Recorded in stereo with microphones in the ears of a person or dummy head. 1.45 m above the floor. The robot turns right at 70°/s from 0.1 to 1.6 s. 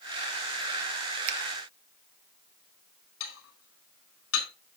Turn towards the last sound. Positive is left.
turn(degrees=80)